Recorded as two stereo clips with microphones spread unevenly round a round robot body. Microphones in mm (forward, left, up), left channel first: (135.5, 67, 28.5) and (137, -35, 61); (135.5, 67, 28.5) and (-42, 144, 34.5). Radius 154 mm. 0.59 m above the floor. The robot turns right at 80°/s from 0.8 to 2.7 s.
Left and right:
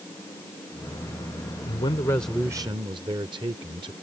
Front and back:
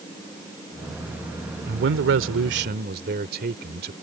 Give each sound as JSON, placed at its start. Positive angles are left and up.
{"t": 1.7, "sound": "a man speaking", "azimuth_deg": 125}